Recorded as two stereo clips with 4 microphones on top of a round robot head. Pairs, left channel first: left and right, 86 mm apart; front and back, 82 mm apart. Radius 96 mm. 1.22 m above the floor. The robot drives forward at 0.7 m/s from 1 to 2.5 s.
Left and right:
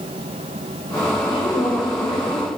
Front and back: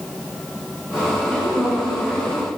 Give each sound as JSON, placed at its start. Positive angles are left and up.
{"t": 1.3, "sound": "a woman speaking", "azimuth_deg": 75, "distance_m": 6.0}